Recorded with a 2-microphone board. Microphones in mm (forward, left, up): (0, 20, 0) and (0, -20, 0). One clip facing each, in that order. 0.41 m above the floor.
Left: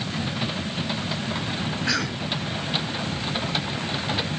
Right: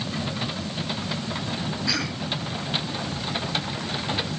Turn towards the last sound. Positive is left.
turn(degrees=50)  # may be behind; listen again after turning